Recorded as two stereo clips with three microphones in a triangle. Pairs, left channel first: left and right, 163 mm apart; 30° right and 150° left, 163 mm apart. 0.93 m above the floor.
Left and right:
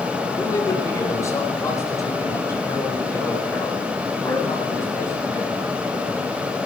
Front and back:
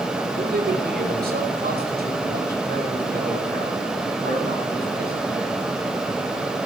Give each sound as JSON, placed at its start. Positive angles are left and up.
{"t": 0.4, "sound": "a man speaking", "azimuth_deg": 160, "distance_m": 3.5}